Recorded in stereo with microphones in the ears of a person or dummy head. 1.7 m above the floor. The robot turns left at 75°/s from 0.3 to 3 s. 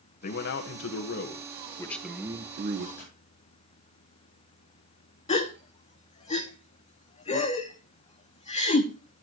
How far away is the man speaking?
About 1.5 m.